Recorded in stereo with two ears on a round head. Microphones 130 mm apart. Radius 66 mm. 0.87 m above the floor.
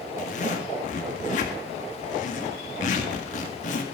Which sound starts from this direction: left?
A zipper, at 0.2 s.